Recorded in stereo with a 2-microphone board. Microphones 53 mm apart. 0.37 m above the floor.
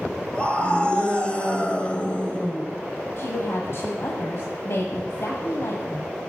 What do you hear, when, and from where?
0.3 s a scream: 20° left (ahead or behind), 2 m
3.2 s a woman speaking: 60° left (ahead or behind), 1.7 m